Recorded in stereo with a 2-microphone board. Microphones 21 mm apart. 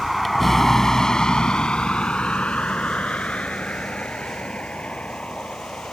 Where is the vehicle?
Centre (ahead or behind); by 5.9 s 75° left (ahead or behind).